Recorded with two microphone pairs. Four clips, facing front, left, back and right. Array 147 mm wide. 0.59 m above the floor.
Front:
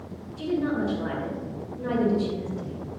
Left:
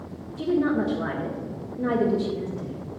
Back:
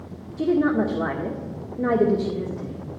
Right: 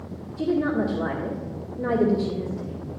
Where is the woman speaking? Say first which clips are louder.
Even, back 6 dB; 175° left, 1.5 m.